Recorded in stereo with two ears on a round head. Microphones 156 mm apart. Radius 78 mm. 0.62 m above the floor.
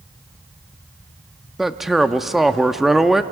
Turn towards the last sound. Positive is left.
turn(degrees=0)  # may be behind; listen again after turning